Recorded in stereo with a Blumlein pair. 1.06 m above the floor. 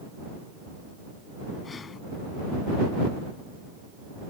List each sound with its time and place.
1.6 s breathing: 20° left